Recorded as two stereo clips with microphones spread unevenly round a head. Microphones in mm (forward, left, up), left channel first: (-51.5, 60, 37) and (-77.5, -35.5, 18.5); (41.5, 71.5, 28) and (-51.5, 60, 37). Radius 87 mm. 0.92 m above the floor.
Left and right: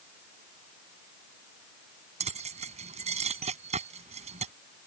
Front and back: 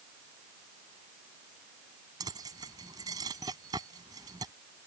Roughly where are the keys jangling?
Right.